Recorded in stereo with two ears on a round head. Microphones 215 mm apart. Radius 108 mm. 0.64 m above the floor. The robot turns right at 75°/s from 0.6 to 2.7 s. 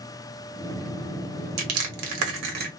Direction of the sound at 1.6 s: 55° right (ahead or behind).